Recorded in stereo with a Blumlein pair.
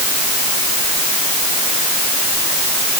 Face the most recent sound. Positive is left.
No sound to turn to.